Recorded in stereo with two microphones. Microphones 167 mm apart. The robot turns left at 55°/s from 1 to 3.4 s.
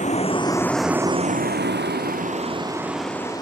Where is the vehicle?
50° left (ahead or behind); by 3.4 s 25° left (ahead or behind).